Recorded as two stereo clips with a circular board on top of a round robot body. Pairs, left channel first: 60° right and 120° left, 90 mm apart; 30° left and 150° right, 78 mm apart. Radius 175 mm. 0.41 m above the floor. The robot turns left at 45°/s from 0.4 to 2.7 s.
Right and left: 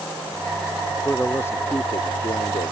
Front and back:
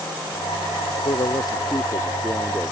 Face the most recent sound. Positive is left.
turn(degrees=-55)